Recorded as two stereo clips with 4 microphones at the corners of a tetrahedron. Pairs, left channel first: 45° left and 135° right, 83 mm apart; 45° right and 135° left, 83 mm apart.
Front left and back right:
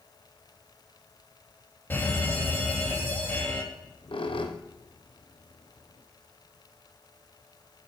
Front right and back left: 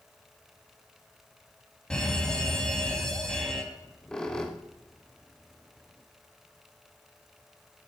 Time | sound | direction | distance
1.9 | a fire alarm | 25° left | 2.5 m
3.7 | a squeak | 40° left | 1.8 m